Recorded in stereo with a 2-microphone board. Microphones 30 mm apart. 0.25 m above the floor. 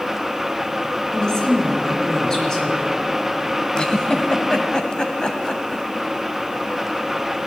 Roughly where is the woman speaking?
Left.